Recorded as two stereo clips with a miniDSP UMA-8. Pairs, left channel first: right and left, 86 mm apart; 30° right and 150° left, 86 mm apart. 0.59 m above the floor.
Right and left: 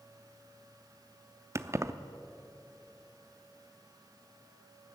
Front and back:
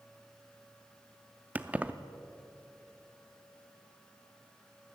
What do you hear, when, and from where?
1.6 s keys jangling: 95° left, 0.5 m